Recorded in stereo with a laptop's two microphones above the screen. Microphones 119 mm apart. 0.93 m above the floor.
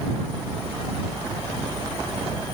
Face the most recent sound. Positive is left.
No sound to turn to.